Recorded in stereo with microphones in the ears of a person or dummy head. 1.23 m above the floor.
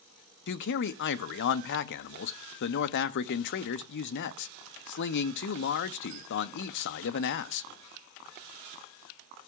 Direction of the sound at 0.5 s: 60° left (ahead or behind).